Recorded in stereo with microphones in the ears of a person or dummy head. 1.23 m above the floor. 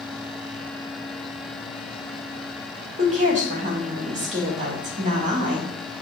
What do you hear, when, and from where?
3.0 s a woman speaking: 35° right (ahead or behind), 2 m